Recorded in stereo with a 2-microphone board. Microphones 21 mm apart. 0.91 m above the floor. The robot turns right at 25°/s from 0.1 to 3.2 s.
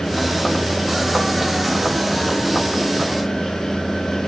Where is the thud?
I don't hear a thud.